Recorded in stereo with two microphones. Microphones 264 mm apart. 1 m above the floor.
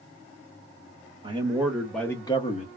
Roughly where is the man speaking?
Right.